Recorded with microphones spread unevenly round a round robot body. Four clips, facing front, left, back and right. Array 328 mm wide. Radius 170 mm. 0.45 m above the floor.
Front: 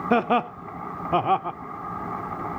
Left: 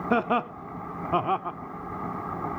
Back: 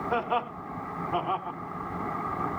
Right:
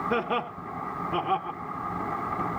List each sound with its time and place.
0.1 s laughter: 15° left, 1.0 m